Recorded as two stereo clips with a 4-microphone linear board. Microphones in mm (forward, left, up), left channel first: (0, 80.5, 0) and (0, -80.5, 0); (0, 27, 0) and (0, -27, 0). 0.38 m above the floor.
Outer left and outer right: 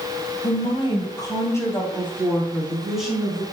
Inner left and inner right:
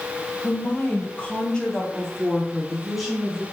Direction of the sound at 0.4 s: 40° left (ahead or behind).